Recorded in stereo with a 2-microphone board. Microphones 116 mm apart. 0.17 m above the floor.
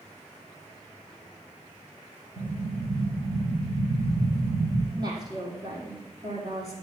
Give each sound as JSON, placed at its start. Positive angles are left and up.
{"t": 2.4, "sound": "an explosion", "side_deg": -40, "distance_m": 6.5}
{"t": 5.0, "sound": "a woman speaking", "side_deg": -35, "distance_m": 6.0}